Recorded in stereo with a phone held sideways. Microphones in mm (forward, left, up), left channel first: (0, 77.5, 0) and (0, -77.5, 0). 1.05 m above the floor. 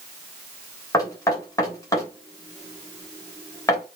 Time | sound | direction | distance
0.9 | knocking | 20° left (ahead or behind) | 3 m